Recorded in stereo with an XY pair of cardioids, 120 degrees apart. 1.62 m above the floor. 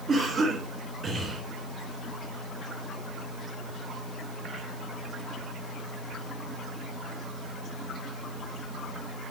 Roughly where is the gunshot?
I don't hear a gunshot.